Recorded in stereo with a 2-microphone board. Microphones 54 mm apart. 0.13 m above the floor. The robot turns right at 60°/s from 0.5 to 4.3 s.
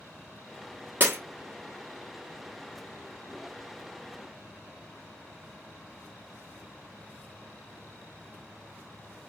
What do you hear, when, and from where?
1.0 s breaking glass: 40° right (ahead or behind), 1.2 m; by 1.2 s 50° right (ahead or behind), 1.2 m